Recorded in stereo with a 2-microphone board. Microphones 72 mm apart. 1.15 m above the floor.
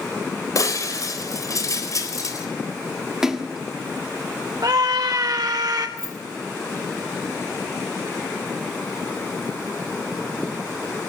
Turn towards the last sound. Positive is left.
turn(degrees=75)  # may be behind; listen again after turning